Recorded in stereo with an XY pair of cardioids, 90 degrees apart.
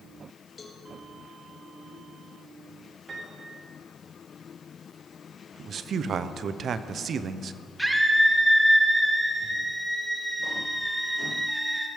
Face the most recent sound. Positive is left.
turn(degrees=-5)